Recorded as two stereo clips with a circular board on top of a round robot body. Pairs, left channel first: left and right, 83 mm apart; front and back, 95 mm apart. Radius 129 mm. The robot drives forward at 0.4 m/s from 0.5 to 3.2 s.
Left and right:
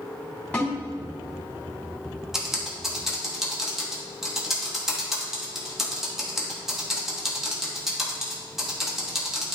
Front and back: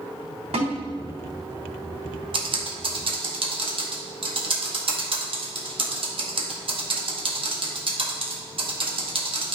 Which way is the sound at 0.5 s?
165° left.